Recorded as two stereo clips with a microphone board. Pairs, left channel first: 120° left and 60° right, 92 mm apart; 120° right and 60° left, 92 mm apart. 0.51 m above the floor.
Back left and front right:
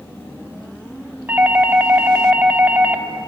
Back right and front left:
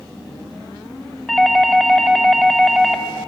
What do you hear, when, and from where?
1.3 s a doorbell: 35° right, 1.4 m